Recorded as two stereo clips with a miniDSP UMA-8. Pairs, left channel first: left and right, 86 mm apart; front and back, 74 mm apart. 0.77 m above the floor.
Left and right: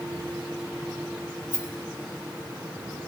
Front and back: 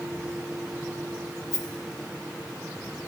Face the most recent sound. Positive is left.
turn(degrees=-40)